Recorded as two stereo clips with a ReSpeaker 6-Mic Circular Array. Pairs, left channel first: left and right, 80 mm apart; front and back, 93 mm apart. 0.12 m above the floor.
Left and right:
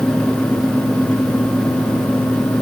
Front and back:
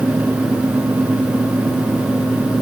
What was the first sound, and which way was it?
Only background noise.